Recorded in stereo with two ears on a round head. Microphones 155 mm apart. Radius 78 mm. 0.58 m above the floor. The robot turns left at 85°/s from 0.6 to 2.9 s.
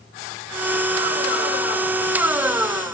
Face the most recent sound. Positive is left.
No sound to turn to.